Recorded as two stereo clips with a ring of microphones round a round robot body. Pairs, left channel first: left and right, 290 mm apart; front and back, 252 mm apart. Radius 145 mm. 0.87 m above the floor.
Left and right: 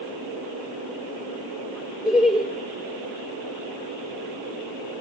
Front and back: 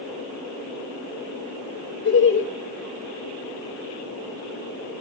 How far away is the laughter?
About 1.2 m.